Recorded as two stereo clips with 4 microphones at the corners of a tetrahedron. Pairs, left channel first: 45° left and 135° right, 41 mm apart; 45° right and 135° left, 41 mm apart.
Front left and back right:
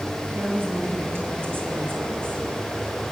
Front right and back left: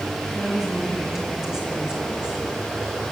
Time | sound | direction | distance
0.3 | a woman speaking | 145° right | 4.5 m